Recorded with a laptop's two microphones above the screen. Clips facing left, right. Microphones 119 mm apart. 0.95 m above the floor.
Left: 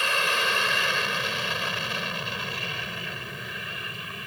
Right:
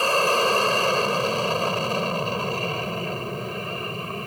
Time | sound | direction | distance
0.0 | an aircraft | 35° right (ahead or behind) | ?